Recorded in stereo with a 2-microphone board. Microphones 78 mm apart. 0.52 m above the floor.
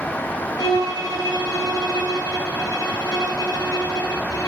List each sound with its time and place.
0.6 s a violin: 55° left (ahead or behind), 6 m